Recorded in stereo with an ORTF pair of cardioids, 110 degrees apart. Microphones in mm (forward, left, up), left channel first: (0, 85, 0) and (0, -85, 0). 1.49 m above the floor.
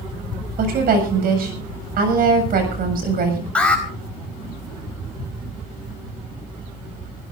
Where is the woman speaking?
60° right, 7.5 m.